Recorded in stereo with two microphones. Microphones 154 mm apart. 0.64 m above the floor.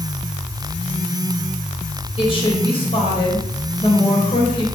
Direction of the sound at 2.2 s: 35° left (ahead or behind).